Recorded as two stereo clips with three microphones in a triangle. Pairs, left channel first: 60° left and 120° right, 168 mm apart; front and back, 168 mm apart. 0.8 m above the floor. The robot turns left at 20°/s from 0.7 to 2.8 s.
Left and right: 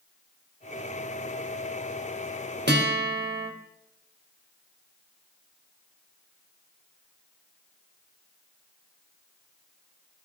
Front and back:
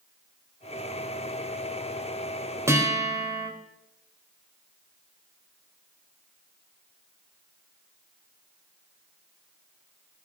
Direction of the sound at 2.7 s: 105° right.